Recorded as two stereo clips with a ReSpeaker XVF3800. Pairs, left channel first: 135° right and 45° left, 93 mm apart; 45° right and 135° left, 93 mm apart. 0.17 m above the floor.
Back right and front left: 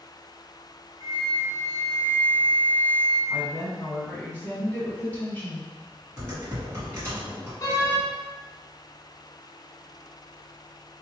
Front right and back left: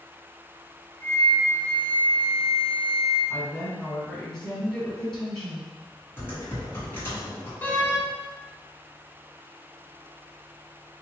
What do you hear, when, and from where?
1.0 s a flute: 10° left, 1.1 m
3.3 s a woman speaking: 120° right, 1.5 m
6.2 s typing on a keyboard: straight ahead, 1.7 m
7.6 s a door slam: 105° right, 0.9 m